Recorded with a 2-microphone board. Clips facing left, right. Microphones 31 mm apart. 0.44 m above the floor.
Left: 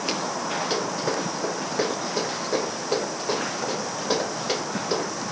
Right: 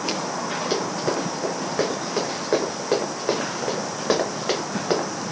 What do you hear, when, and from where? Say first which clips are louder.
0.7 s running footsteps: right 4 dB; centre (ahead or behind), 1.7 m; by 5.1 s 70° right (ahead or behind), 1.6 m